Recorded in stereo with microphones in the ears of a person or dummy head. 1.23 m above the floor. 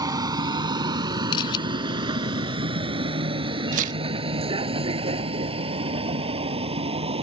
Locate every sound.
0.0 s a vehicle: 20° right (ahead or behind); by 7.2 s 30° right (ahead or behind)
1.3 s a camera shutter: 30° left (ahead or behind)
3.7 s tearing paper: 40° right (ahead or behind)